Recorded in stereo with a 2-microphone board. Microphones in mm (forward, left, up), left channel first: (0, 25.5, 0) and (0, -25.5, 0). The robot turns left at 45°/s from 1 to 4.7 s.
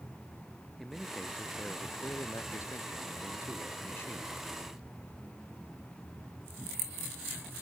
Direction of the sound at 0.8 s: Straight behind.